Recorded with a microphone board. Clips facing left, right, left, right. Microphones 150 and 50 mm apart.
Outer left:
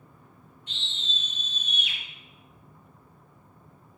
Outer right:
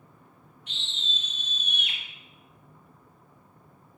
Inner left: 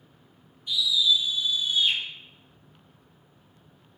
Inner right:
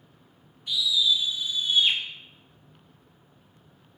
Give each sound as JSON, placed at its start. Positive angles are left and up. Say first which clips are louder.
{"t": 0.7, "sound": "a scream", "louder": "even, inner left 1 dB", "side_deg": -75, "distance_m": 1.8}